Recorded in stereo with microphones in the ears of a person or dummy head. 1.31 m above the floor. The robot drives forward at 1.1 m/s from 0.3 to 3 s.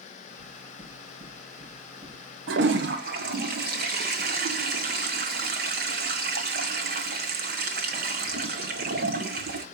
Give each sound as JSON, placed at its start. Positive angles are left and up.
{"t": 0.4, "sound": "knocking", "side_deg": -25, "distance_m": 6.5}
{"t": 2.5, "sound": "a toilet flushing", "side_deg": -65, "distance_m": 1.0}